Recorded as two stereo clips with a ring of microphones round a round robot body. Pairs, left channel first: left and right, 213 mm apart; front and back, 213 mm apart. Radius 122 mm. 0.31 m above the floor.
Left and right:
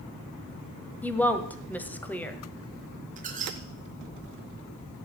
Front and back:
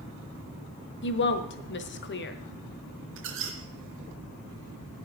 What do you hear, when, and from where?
1.0 s a woman speaking: 10° left, 1.7 m
3.2 s a squeak: 145° right, 2.5 m